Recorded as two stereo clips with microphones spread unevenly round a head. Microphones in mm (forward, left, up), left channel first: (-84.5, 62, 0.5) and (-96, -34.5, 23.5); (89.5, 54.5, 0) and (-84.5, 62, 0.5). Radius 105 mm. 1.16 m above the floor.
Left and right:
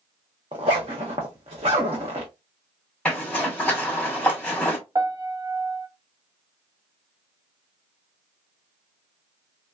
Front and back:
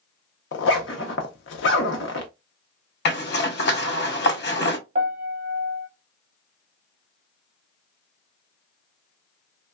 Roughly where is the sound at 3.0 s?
Ahead.